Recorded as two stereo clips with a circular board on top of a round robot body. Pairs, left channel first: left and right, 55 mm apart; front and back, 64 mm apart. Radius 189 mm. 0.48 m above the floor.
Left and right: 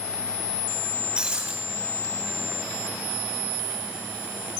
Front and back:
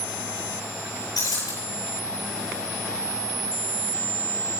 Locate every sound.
1.2 s breaking glass: 20° right, 9.5 m